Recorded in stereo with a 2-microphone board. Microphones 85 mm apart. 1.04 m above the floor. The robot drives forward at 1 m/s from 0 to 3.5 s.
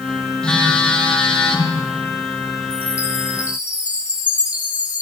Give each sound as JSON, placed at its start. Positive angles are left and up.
{"t": 0.4, "sound": "a phone buzzing", "side_deg": 5, "distance_m": 9.5}
{"t": 2.7, "sound": "a chime", "side_deg": -15, "distance_m": 7.0}